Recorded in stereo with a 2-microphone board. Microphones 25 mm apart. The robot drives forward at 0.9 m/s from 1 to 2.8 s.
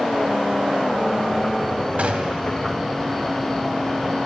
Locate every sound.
2.0 s a gunshot: 55° right (ahead or behind), 1.7 m; by 2.5 s 50° right (ahead or behind), 1.9 m